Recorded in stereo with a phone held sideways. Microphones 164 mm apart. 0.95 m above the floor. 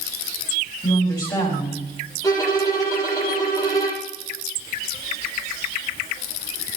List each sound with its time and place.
0.8 s a woman speaking: 25° left (ahead or behind), 6.5 m
2.2 s a violin: 20° left (ahead or behind), 6.5 m